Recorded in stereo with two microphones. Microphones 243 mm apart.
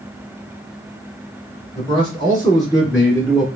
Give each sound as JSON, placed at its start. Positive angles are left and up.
{"t": 1.8, "sound": "a man speaking", "side_deg": 25, "distance_m": 1.8}